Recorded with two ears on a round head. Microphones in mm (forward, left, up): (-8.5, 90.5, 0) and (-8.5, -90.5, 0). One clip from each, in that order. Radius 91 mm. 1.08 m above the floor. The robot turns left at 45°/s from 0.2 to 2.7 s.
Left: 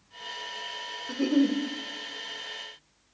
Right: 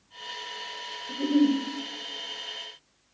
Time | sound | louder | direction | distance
1.1 | a giggle | right 2 dB | 65° left (ahead or behind) | 0.6 m